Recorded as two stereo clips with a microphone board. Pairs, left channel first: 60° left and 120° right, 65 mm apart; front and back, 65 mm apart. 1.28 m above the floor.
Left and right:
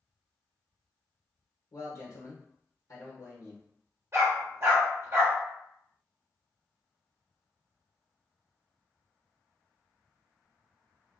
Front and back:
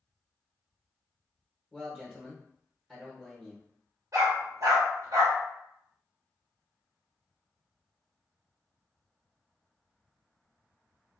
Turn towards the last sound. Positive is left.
turn(degrees=-160)